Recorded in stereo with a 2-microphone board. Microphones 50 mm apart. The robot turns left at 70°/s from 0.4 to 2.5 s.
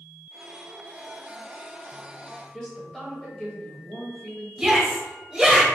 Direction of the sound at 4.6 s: 15° right (ahead or behind).